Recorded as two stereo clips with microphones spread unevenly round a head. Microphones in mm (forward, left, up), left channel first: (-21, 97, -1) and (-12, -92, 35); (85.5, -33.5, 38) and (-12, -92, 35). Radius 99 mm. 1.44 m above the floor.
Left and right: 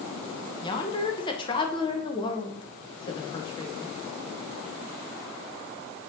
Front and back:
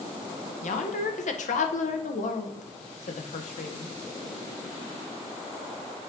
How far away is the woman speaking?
About 1.1 m.